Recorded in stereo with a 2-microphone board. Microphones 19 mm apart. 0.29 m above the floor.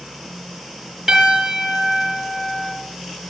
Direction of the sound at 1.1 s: 20° right (ahead or behind).